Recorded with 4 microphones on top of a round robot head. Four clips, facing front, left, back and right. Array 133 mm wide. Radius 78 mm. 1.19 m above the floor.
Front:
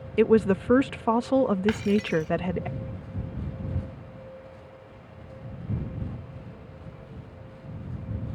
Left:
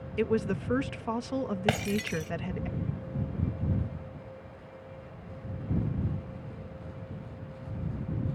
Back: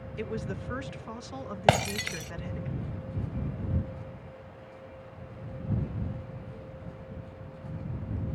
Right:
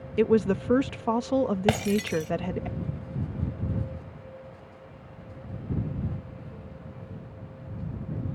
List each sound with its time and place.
0.2 s a woman speaking: 25° right
1.7 s breaking glass: 170° right